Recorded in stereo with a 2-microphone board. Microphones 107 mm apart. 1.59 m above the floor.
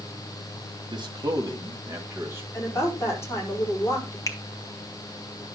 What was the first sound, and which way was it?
A man speaking, 45° right (ahead or behind).